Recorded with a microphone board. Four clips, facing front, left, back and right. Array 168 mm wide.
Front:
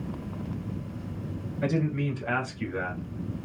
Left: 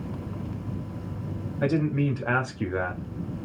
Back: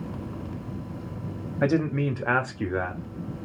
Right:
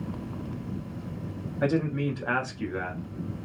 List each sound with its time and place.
1.6 s a man speaking: 175° right, 1.2 m; by 3.0 s 125° left, 1.1 m